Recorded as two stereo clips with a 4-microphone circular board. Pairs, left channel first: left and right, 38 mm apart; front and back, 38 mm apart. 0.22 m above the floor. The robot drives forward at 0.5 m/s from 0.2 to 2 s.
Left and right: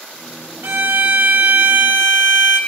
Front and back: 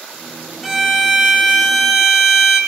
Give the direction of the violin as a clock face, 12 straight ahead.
3 o'clock.